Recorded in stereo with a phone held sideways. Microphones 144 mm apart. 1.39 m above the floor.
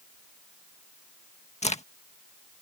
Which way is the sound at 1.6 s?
50° left (ahead or behind).